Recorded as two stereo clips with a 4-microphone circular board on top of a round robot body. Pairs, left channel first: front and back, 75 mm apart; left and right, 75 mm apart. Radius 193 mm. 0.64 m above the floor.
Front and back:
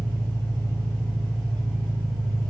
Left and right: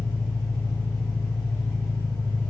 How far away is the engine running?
About 1.4 m.